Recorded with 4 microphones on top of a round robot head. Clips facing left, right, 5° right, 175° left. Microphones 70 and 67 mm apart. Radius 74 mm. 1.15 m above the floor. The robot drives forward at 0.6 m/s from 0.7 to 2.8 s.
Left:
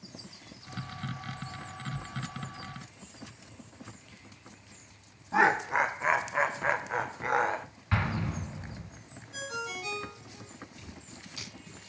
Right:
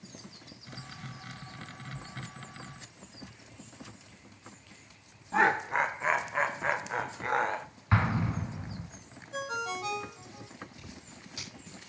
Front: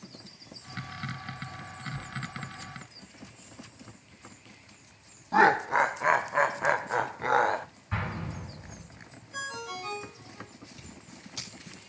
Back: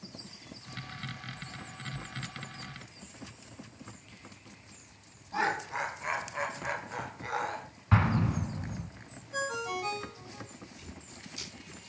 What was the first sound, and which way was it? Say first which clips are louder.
Laughter: left 1 dB, front 10 dB; 5° left.